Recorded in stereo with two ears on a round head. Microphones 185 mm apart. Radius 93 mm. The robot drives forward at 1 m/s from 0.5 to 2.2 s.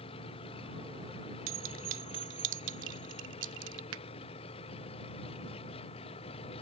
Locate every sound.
0.0 s an engine running: 30° left (ahead or behind)
1.5 s a clink: 80° right; by 3.8 s 70° right (ahead or behind)
3.9 s a finger snap: 80° right